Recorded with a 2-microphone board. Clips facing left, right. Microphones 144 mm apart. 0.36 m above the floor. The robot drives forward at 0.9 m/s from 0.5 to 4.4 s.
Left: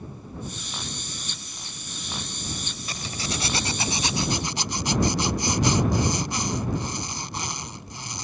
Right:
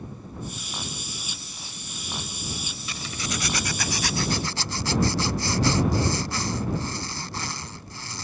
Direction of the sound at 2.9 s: 40° left (ahead or behind).